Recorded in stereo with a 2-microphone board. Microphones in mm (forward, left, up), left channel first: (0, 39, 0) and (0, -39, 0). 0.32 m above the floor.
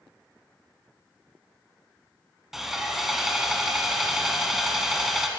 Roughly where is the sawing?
Centre.